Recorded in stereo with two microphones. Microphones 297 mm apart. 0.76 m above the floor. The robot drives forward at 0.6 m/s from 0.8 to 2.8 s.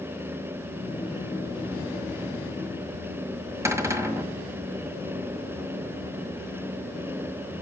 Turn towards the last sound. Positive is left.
turn(degrees=-10)  # may be behind; listen again after turning